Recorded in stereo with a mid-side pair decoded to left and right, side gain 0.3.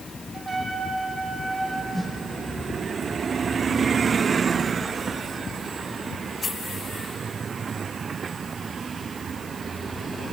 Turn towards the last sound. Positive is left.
turn(degrees=25)